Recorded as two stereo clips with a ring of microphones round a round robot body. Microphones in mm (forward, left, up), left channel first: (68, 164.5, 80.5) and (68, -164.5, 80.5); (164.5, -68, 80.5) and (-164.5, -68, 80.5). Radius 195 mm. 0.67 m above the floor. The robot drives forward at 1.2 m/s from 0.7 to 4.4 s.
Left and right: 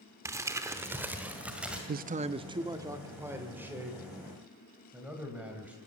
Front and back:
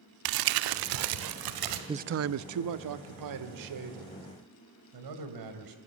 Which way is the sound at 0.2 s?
170° right.